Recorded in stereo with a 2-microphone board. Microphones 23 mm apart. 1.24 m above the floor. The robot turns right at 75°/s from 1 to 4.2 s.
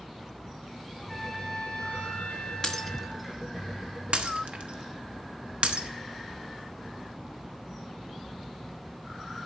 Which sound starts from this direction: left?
Breaking glass, at 2.6 s.